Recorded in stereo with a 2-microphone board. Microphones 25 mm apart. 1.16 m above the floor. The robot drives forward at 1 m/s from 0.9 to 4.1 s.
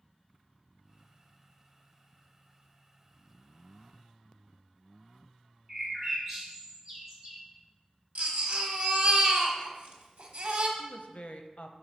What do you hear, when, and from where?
5.7 s a bird: 10° right (ahead or behind), 3 m
8.2 s a baby crying: 75° right (ahead or behind), 1.2 m
10.8 s a woman speaking: 60° left (ahead or behind), 0.6 m